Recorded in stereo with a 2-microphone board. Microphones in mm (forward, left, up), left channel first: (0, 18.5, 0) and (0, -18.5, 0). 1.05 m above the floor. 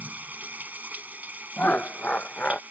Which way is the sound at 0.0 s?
45° right (ahead or behind).